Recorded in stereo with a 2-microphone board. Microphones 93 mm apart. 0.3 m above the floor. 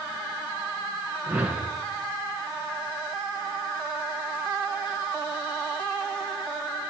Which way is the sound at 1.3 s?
15° right (ahead or behind).